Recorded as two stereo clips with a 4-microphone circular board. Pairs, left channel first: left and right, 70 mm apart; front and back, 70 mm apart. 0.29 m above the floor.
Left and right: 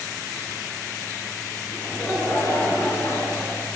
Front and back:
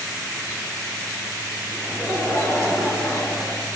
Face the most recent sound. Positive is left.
turn(degrees=50)